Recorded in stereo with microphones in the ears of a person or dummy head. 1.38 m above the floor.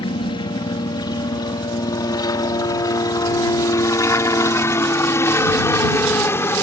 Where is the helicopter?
25° left (ahead or behind); by 6.6 s 15° left (ahead or behind).